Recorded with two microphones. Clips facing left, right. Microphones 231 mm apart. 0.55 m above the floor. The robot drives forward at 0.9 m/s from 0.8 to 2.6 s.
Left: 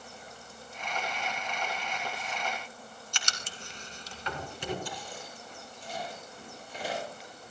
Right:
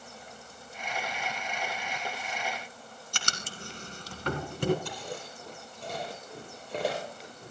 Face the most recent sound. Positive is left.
turn(degrees=-75)  # may be behind; listen again after turning